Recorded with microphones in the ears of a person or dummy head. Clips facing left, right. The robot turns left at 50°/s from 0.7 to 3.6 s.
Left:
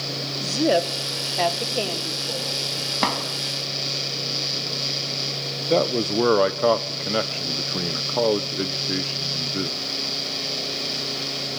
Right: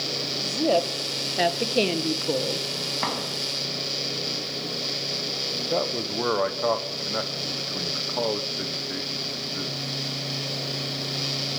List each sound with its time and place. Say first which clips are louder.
0.4 s a woman speaking: left 2 dB; 20° left, 2.0 m; by 2.7 s 75° right, 2.0 m
3.0 s a drawer: left 5 dB; 55° left (ahead or behind), 3.5 m; by 3.2 s 65° left (ahead or behind), 3.5 m
5.7 s a man speaking: left 7 dB; 50° left (ahead or behind), 1.0 m